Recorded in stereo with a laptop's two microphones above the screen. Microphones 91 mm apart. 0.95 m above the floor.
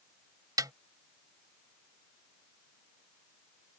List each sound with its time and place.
0.6 s a snare drum: 45° right (ahead or behind)